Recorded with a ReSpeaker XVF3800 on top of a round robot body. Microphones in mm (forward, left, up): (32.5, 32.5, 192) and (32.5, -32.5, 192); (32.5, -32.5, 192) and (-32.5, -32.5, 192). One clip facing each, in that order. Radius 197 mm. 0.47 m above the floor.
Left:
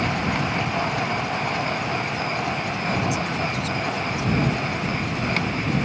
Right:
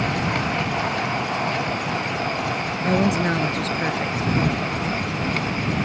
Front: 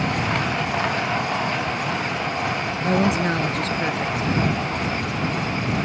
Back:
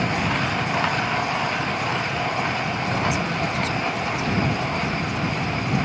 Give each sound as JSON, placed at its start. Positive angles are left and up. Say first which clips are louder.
{"t": 2.8, "sound": "a woman speaking", "louder": "right 7 dB, front 7 dB", "azimuth_deg": -45}